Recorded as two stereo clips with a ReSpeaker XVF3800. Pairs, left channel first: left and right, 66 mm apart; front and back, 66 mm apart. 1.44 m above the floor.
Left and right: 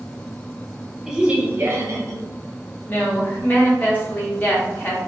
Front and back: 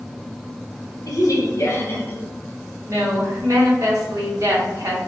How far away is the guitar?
I don't hear a guitar.